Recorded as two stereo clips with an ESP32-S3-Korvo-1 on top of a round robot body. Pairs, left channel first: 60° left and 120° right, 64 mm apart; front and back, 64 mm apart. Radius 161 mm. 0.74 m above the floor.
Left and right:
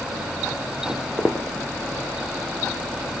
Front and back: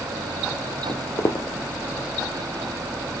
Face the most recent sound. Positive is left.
turn(degrees=-45)